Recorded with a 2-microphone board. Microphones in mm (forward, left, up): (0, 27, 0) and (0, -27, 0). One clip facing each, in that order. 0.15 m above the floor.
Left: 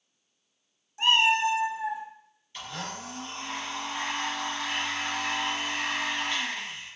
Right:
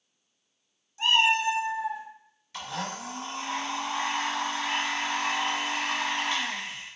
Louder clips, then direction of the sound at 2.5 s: Right 3 dB; 85° right.